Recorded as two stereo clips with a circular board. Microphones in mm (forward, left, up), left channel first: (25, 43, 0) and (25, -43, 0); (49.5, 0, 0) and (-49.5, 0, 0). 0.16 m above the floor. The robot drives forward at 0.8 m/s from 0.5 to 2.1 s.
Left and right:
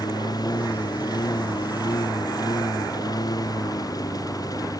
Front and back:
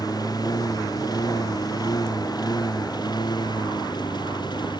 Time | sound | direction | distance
0.0 | a lawn mower | 50° left | ?